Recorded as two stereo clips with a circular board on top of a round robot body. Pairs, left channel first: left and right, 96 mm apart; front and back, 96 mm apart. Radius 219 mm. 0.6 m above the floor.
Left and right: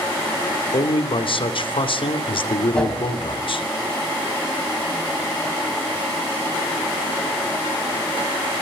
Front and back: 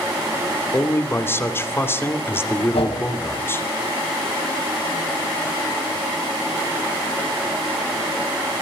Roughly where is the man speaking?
Ahead left.